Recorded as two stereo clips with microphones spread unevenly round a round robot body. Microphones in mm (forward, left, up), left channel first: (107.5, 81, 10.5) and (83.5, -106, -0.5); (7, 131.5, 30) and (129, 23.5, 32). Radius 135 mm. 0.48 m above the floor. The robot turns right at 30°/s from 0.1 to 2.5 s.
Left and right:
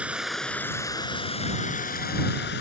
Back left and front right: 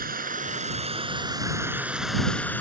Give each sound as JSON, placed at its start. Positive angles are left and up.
{"t": 0.0, "sound": "running water", "azimuth_deg": -15}